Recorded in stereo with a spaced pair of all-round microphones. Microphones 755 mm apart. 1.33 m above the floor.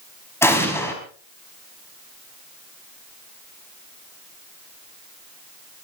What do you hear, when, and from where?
0.4 s an explosion: 5° left (ahead or behind), 5 m